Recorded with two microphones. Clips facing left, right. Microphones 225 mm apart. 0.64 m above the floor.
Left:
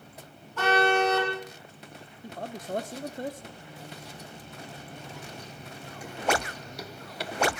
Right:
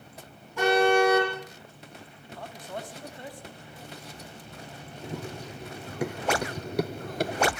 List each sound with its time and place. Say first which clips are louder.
0.6 s a car horn: right 3 dB; 10° right (ahead or behind), 9 m
2.2 s a man speaking: left 6 dB; 45° left (ahead or behind), 1.2 m
5.0 s running footsteps: right 6 dB; 75° right (ahead or behind), 2.5 m; by 7.5 s 35° right (ahead or behind), 0.8 m